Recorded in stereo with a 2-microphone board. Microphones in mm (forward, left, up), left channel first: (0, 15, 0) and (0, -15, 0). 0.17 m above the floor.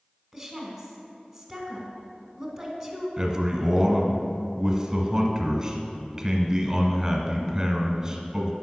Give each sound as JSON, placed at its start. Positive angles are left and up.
{"t": 0.3, "sound": "a woman speaking", "side_deg": -5, "distance_m": 1.7}
{"t": 3.2, "sound": "a man speaking", "side_deg": -20, "distance_m": 1.2}